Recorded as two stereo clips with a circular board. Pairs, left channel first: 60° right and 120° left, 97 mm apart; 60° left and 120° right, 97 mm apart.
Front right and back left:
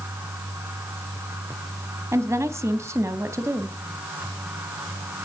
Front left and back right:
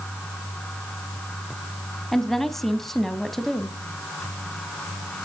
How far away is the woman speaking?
About 1.1 m.